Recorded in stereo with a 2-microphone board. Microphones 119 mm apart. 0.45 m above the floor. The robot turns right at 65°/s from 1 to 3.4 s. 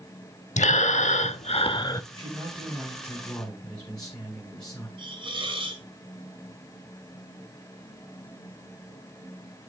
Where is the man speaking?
75° right, 2.5 m; by 4.9 s 10° left, 2.5 m.